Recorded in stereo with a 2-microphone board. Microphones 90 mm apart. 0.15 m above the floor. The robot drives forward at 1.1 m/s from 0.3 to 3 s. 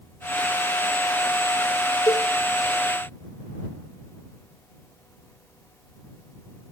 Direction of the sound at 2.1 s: 40° left (ahead or behind).